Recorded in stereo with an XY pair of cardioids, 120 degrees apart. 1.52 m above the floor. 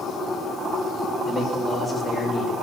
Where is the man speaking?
25° left, 7 m.